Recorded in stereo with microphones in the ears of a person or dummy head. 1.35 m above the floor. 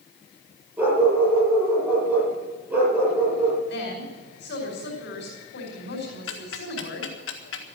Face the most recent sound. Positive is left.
turn(degrees=70)  # may be behind; listen again after turning